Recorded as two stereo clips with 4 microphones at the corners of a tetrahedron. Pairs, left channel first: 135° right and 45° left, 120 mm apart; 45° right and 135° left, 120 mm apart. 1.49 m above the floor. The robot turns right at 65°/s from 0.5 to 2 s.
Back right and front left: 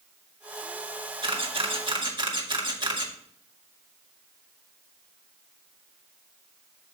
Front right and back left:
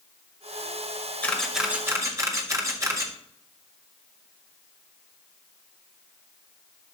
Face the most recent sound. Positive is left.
turn(degrees=80)